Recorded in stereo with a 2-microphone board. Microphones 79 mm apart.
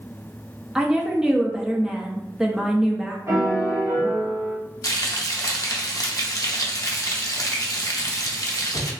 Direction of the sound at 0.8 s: 10° right (ahead or behind).